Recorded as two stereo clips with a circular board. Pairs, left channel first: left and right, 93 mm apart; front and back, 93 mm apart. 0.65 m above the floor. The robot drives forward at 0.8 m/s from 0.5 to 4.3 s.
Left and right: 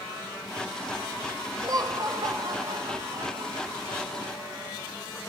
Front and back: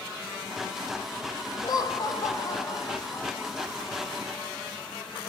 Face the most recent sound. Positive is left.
turn(degrees=-90)